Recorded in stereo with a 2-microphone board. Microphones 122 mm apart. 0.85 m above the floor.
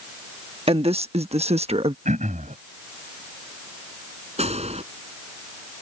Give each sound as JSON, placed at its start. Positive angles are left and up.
{"t": 0.7, "sound": "a woman speaking", "side_deg": -55}
{"t": 2.0, "sound": "throat clearing", "side_deg": -85}
{"t": 4.4, "sound": "a gunshot", "side_deg": -60}